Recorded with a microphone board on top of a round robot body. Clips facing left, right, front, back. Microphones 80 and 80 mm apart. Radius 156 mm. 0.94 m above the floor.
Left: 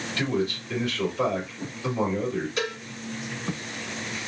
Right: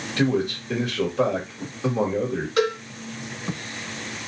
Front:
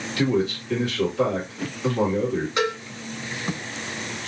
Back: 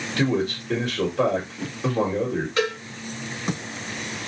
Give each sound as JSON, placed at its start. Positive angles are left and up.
{"t": 0.2, "sound": "a man speaking", "azimuth_deg": -135, "distance_m": 1.3}
{"t": 2.6, "sound": "a cowbell", "azimuth_deg": -75, "distance_m": 1.5}